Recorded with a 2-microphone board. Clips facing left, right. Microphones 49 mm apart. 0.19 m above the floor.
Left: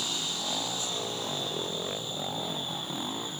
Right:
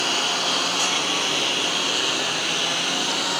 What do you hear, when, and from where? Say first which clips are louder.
0.0 s a lawn mower: right 11 dB; 60° right (ahead or behind); by 3.4 s 80° right